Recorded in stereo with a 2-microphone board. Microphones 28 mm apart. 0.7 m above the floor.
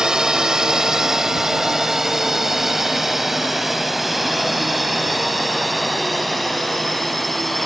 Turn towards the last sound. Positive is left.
turn(degrees=5)  # may be behind; listen again after turning